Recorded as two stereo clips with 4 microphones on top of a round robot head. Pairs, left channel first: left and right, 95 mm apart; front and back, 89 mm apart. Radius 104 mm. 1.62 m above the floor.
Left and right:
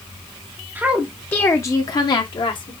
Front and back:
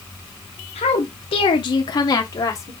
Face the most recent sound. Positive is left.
turn(degrees=55)